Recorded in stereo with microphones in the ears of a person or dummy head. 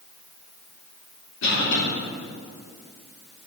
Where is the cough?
70° left (ahead or behind), 2.5 m.